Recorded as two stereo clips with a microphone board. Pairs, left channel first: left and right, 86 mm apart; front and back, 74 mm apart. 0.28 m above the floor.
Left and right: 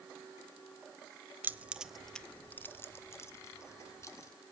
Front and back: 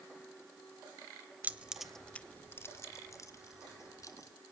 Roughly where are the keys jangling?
Behind right.